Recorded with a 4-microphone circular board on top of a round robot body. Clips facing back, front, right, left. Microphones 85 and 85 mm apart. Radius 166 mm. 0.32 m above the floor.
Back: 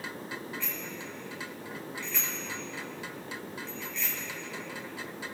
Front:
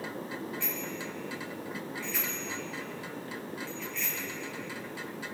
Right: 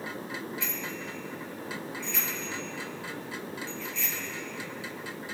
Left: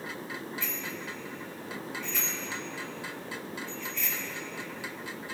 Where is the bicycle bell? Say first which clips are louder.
Front 3 dB, right 1 dB; 70° right, 6.5 m; by 4.2 s 90° right, 6 m.